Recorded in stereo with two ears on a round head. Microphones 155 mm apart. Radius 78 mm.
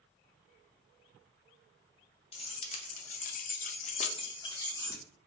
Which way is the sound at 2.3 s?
35° left (ahead or behind).